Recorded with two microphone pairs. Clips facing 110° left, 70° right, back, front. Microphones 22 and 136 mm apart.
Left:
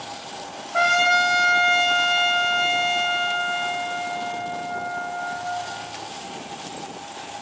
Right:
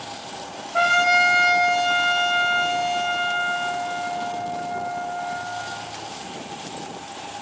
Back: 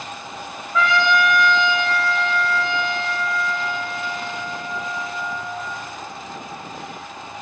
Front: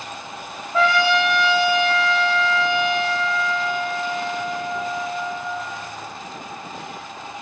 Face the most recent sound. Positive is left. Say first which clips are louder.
# right 1 dB, front 1 dB
turn(degrees=60)